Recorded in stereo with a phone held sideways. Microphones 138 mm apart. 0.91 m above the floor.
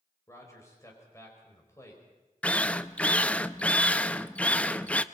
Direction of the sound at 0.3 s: 20° left (ahead or behind).